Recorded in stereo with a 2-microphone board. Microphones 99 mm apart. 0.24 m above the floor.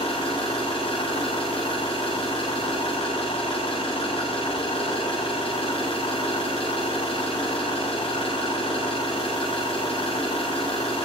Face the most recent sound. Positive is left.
turn(degrees=75)  # may be behind; listen again after turning